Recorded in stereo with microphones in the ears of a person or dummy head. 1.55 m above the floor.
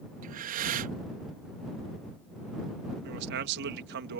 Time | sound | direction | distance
0.2 | breathing | 40° right (ahead or behind) | ?
3.0 | a man speaking | 60° right (ahead or behind) | ?